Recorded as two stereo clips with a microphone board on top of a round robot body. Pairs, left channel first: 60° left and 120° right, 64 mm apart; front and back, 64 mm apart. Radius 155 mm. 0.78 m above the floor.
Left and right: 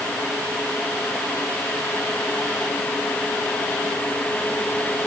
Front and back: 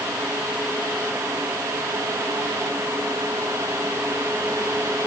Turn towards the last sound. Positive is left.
No sound to turn to.